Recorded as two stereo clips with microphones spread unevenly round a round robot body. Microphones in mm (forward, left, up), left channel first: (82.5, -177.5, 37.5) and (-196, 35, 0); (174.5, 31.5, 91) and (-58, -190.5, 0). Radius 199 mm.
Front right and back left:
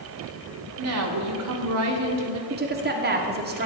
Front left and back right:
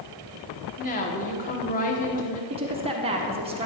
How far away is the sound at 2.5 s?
About 1.4 m.